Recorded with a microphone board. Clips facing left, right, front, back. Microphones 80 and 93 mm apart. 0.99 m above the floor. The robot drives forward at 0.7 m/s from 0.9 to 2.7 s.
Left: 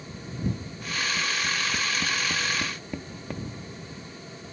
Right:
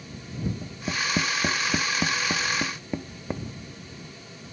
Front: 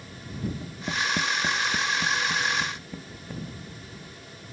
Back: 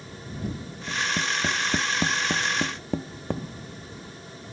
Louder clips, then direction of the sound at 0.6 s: Right 2 dB, front 2 dB; 60° right.